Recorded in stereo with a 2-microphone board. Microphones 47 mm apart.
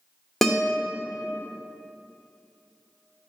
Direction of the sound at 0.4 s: 5° left (ahead or behind).